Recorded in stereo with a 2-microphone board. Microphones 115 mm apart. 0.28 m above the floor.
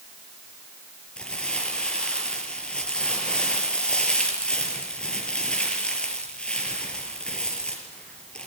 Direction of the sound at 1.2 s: 10° left (ahead or behind).